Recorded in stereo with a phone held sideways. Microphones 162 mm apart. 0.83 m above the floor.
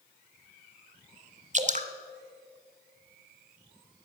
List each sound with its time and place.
1.5 s dripping: 45° right (ahead or behind), 0.9 m